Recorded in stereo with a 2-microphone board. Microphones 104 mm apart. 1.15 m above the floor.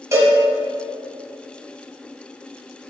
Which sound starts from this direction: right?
A cowbell, at 0.1 s.